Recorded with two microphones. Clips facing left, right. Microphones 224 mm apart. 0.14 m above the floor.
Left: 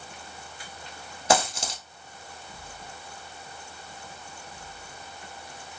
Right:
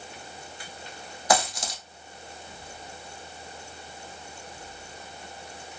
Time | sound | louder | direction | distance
1.3 | a dropped coin | left 1 dB | 25° left (ahead or behind) | 1.2 m